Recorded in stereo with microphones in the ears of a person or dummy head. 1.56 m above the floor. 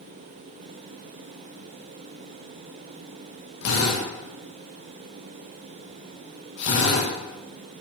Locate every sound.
3.6 s a drill: 75° left (ahead or behind), 8 m